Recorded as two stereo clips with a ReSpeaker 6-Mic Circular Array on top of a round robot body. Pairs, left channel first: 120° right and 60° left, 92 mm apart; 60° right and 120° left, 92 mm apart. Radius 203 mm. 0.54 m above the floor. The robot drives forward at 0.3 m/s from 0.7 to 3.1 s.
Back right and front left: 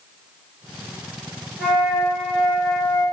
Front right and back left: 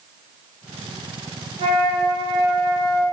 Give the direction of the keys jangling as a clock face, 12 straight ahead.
No keys jangling in this recording.